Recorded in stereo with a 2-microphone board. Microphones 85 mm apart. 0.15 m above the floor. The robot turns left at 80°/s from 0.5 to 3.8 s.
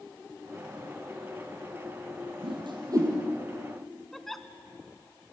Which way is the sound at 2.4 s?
75° right (ahead or behind).